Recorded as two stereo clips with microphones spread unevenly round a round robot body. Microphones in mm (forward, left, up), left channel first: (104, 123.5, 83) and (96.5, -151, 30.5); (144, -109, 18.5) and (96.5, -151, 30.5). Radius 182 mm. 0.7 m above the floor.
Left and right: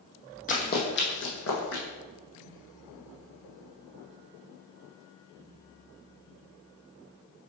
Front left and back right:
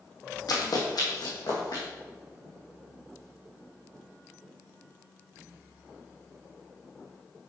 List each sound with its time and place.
0.5 s running footsteps: 35° left, 1.4 m; by 1.8 s 65° left, 2 m